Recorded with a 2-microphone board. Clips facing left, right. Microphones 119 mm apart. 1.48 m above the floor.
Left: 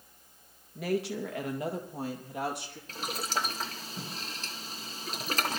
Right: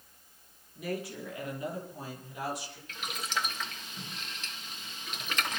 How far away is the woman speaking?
About 1.7 m.